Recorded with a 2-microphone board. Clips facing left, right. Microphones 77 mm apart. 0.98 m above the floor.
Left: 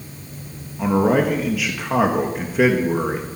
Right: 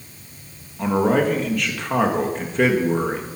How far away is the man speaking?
About 1.3 m.